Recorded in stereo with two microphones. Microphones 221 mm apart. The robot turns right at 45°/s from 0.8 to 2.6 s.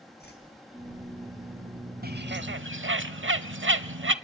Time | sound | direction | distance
0.2 | a whoosh | 50° left (ahead or behind) | 4 m
2.0 | a bird | 45° right (ahead or behind) | 0.8 m